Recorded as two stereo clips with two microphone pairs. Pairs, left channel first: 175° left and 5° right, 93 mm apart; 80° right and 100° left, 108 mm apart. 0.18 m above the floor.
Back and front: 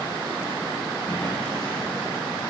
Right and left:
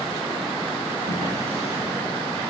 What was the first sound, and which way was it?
A drawer, 105° left.